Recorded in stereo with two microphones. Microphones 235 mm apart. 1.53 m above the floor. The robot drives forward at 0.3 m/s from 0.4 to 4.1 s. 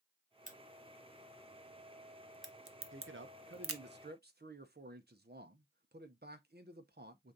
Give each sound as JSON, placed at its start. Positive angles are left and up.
{"t": 0.5, "sound": "a crack", "side_deg": -30, "distance_m": 1.2}
{"t": 2.9, "sound": "a man speaking", "side_deg": -60, "distance_m": 0.7}